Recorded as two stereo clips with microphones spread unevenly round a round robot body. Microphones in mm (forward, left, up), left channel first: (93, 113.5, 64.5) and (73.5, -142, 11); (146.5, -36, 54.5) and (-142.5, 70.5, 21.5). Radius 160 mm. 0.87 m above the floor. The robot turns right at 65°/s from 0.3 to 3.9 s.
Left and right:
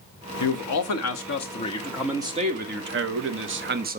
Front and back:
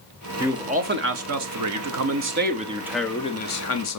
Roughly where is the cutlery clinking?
I don't hear cutlery clinking.